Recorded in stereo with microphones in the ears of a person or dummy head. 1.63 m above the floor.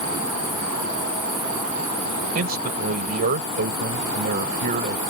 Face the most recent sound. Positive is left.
turn(degrees=-45)  # may be behind; listen again after turning